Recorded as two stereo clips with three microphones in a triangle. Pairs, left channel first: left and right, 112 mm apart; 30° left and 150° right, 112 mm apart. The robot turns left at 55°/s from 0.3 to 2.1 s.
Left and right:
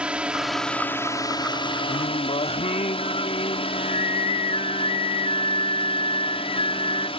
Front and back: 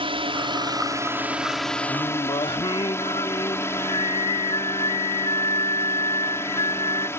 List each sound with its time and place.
0.0 s a drone: 170° right; by 7.2 s 90° left
1.9 s singing: 80° left; by 7.1 s 70° left